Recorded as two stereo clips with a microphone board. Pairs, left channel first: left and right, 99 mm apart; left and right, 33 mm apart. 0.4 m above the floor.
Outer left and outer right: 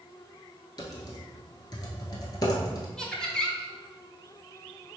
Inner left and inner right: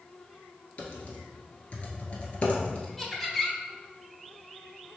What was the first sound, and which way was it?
Typing on a keyboard, 40° left (ahead or behind).